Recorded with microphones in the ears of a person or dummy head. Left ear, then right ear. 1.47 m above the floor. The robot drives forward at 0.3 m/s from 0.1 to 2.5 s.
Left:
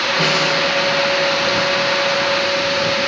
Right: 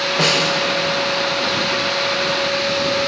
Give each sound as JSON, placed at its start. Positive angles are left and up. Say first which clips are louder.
{"t": 0.2, "sound": "a snare drum", "louder": "right 2 dB", "side_deg": -25, "distance_m": 3.5}